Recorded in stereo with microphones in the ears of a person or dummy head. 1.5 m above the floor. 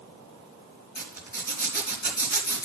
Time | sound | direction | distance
0.9 | a zipper | 45° left (ahead or behind) | 3 m